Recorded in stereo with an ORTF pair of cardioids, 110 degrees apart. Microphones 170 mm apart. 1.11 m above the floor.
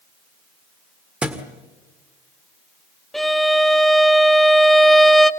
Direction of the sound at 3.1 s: Straight ahead.